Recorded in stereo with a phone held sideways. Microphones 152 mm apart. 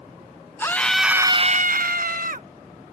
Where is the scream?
15° left (ahead or behind); by 2.5 s 60° right (ahead or behind).